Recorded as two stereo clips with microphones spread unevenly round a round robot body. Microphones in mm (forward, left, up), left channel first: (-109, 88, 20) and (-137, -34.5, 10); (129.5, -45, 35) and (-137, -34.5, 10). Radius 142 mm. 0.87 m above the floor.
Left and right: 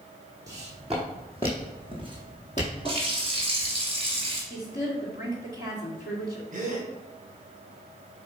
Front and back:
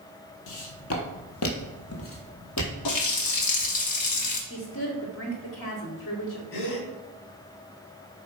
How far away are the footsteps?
About 1.6 m.